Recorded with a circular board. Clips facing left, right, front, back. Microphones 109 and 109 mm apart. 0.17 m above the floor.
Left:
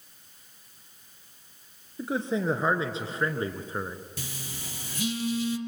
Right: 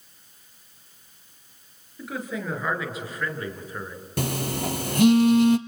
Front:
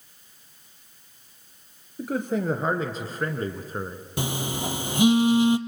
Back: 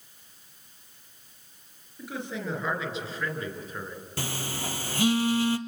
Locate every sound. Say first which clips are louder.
2.0 s a man speaking: left 4 dB, front 9 dB; 35° left, 3 m
4.2 s a phone buzzing: right 14 dB, front 6 dB; 70° right, 0.8 m